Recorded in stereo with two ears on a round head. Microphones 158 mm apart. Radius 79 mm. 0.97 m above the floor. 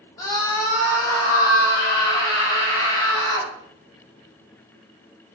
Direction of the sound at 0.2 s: 20° left (ahead or behind).